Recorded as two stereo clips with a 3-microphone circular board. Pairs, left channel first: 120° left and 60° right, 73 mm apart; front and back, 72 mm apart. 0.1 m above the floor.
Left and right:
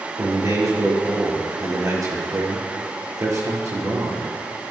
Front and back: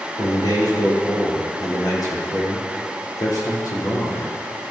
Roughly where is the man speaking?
Ahead right.